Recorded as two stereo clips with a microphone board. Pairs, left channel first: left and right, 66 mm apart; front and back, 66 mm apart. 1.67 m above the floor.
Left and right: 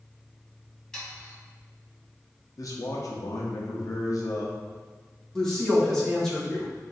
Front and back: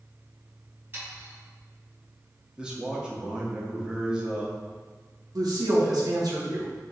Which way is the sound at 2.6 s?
105° left.